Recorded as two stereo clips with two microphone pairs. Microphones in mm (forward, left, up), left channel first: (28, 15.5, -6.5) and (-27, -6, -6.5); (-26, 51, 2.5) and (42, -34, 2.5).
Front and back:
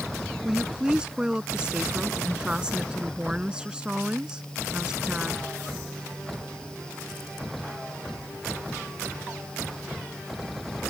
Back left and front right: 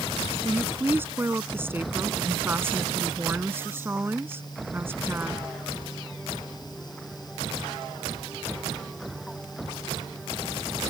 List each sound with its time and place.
0.5 s a woman speaking: 100° right